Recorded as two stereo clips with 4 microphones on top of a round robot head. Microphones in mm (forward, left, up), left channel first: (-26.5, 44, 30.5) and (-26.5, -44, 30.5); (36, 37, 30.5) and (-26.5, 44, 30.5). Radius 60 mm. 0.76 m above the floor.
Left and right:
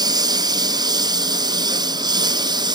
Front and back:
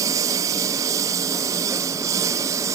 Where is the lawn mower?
135° right; by 2.8 s 130° right.